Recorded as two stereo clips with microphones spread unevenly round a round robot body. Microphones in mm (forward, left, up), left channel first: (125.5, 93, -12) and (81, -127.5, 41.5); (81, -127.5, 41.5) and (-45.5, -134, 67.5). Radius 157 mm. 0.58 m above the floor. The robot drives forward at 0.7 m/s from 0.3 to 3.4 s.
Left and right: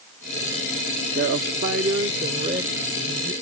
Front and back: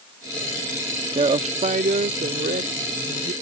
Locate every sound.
1.1 s a woman speaking: 150° right; by 3.3 s 170° right